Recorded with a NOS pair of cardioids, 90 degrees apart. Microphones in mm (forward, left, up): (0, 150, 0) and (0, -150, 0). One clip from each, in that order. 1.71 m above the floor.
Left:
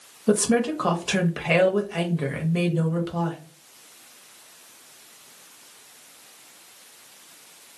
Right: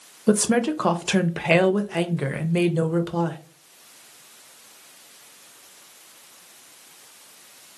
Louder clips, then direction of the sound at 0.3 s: Right 1 dB; 20° right.